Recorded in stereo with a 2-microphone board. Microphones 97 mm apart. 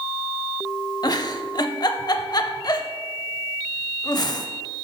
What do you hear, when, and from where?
1.0 s a giggle: 45° left (ahead or behind), 0.6 m